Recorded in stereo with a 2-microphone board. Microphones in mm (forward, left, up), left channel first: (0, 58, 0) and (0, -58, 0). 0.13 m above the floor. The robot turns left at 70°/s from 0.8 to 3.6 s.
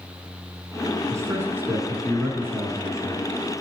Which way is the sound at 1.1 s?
30° right (ahead or behind).